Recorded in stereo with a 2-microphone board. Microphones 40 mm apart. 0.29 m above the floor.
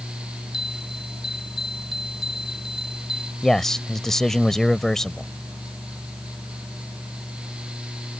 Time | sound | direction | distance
0.5 | a bell | 15° right (ahead or behind) | ?
3.4 | a man speaking | 10° left (ahead or behind) | ?